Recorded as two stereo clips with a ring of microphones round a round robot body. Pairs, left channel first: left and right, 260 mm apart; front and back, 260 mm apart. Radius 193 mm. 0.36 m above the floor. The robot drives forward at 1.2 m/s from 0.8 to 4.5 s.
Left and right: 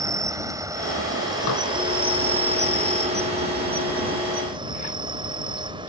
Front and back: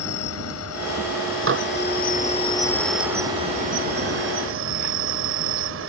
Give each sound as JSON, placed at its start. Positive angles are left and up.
{"t": 0.0, "sound": "an insect", "azimuth_deg": -15}
{"t": 1.5, "sound": "dishes clattering", "azimuth_deg": 140}